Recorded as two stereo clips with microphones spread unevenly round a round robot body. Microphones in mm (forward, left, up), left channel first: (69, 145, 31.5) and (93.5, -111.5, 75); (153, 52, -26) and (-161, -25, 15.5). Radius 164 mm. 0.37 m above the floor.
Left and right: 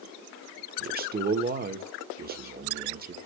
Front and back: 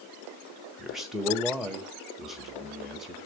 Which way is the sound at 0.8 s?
65° right.